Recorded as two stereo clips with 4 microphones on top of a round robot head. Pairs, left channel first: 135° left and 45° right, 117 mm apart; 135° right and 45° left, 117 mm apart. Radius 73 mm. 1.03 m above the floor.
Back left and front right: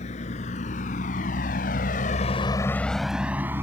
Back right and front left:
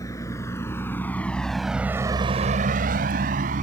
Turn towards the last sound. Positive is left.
turn(degrees=25)